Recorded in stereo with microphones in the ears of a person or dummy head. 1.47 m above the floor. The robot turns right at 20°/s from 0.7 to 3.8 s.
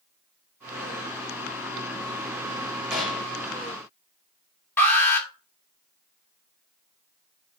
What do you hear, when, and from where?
2.9 s a gunshot: centre (ahead or behind), 3.5 m; by 3.4 s 10° left (ahead or behind), 3.5 m
4.8 s an alarm: 10° left (ahead or behind), 2.5 m